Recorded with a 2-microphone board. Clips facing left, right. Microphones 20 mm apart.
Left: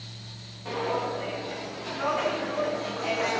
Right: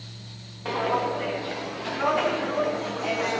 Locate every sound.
0.7 s footsteps: 30° right (ahead or behind), 2.5 m; by 3.4 s 10° left (ahead or behind), 0.9 m